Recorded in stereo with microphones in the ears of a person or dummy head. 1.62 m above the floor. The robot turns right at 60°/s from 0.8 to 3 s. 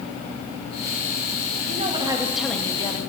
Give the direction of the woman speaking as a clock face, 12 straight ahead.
2 o'clock.